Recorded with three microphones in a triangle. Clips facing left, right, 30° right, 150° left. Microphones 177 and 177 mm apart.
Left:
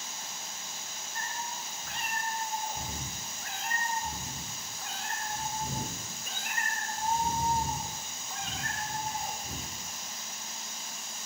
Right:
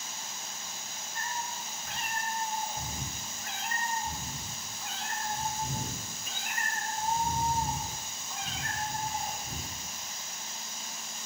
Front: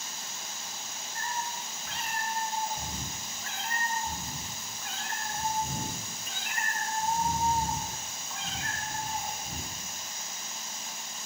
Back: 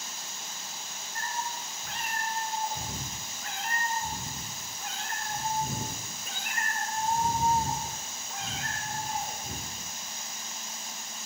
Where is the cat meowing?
120° left, 2 m.